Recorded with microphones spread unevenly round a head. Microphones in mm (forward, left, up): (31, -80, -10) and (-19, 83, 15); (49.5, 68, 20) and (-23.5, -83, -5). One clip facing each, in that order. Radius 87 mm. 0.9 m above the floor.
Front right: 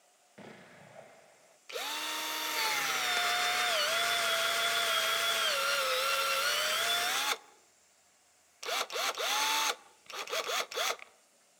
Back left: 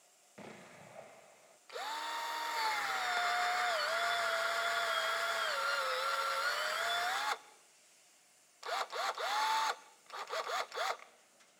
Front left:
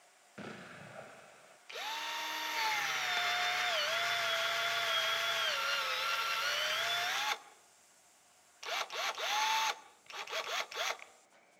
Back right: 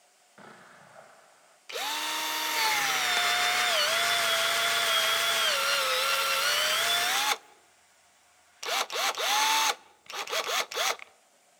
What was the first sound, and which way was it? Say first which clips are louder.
An explosion: front right 1 dB, front left 4 dB; 5° left.